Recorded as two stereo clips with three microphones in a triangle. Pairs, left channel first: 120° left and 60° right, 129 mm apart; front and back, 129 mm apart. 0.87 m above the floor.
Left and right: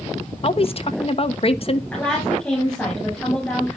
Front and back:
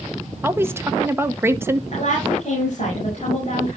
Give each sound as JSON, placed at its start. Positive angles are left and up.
{"t": 0.4, "sound": "a woman speaking", "azimuth_deg": 115, "distance_m": 1.0}
{"t": 1.9, "sound": "a woman speaking", "azimuth_deg": 35, "distance_m": 7.5}